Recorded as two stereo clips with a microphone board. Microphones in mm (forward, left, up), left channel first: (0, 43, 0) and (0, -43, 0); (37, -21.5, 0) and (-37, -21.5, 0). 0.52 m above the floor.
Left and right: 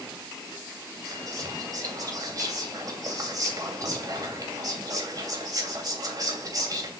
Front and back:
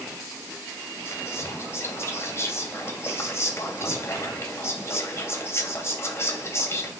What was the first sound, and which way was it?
Whispering, 50° right.